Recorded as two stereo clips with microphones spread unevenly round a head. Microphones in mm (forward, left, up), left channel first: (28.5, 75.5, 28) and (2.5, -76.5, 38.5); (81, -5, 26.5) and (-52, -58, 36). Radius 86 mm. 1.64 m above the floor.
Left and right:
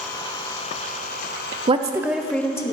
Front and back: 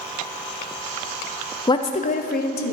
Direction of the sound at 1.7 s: 45° right.